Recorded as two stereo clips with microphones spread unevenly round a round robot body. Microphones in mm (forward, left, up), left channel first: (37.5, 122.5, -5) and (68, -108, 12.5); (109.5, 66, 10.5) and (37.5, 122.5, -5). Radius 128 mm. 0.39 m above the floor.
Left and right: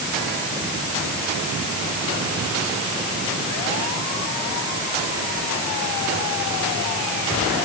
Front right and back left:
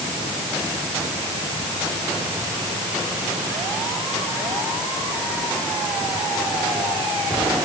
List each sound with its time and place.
Only background noise.